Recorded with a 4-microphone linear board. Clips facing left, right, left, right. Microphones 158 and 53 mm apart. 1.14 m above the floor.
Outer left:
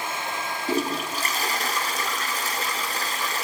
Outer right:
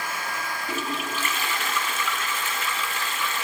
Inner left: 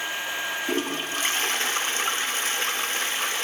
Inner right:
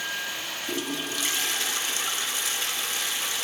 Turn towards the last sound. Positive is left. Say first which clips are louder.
# outer left 6 dB, inner left 1 dB
turn(degrees=40)  # may be behind; listen again after turning